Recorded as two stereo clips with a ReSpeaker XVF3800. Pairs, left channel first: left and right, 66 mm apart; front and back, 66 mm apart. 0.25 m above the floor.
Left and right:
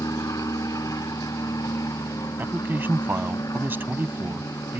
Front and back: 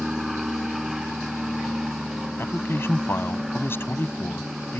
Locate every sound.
0.0 s an aircraft: 95° left
2.4 s a man speaking: 40° right